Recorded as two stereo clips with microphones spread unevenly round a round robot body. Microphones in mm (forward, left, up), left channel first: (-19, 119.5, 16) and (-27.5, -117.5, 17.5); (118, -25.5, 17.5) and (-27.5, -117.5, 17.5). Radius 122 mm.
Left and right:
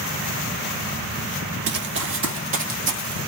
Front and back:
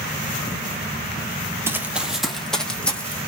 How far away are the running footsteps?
About 1.2 m.